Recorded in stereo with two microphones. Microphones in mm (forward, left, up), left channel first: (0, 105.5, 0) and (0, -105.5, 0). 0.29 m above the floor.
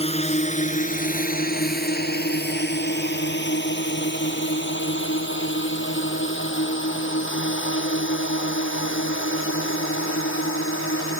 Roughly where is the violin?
I don't hear a violin.